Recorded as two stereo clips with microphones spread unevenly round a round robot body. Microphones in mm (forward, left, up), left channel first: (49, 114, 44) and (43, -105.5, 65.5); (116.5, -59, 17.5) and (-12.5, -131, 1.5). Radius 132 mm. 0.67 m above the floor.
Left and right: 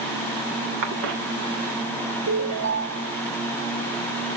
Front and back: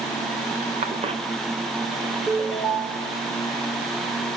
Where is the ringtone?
65° right, 1.7 m.